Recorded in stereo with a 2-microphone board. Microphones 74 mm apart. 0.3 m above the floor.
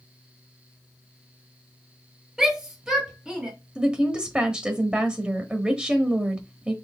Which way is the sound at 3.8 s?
15° right (ahead or behind).